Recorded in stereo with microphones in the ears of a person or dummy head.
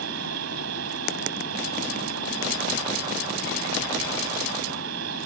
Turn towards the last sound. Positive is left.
turn(degrees=-80)